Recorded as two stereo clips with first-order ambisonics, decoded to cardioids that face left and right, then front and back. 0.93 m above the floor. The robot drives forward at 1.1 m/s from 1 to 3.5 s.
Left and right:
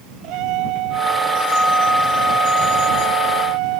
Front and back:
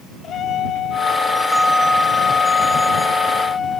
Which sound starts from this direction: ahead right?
A trumpet, at 0.2 s.